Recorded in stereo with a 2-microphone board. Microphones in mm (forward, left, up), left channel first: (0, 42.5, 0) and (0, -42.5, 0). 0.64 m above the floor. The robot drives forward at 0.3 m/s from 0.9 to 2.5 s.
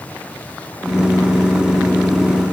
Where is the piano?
I don't hear a piano.